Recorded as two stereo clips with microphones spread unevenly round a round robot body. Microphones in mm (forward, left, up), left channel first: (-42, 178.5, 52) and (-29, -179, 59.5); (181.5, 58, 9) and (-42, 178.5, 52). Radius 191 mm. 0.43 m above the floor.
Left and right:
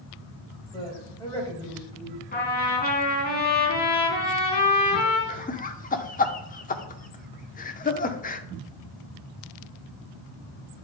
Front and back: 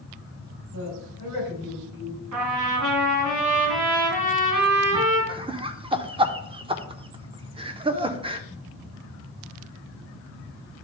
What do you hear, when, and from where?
0.7 s a woman speaking: 170° left, 3 m
2.3 s a trumpet: 160° left, 2.5 m
5.3 s laughter: 90° left, 0.8 m